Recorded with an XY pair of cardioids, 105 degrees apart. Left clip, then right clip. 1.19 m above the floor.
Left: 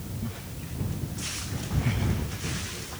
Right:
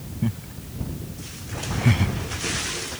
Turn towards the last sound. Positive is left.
turn(degrees=-55)